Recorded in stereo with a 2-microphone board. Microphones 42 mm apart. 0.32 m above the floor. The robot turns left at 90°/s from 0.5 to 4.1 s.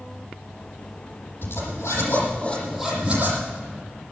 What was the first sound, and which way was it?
A zipper, 125° left.